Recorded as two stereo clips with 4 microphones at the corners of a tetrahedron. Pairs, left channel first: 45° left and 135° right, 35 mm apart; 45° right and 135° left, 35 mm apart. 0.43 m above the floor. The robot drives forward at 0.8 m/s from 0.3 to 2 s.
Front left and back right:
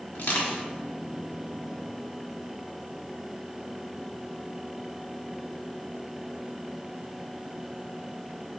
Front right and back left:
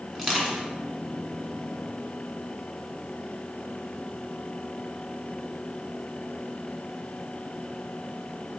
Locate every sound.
0.1 s crushing: 50° left, 1.3 m; by 0.6 s 60° left, 1.1 m